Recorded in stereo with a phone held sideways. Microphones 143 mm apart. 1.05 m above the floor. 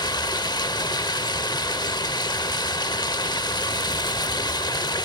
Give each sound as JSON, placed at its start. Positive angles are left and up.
{"t": 0.0, "sound": "running water", "side_deg": 30, "distance_m": 0.9}